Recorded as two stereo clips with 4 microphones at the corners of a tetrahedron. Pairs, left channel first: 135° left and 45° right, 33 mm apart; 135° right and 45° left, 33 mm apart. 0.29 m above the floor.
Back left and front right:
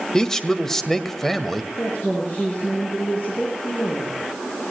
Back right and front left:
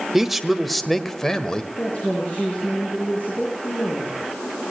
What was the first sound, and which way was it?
A man speaking, 105° left.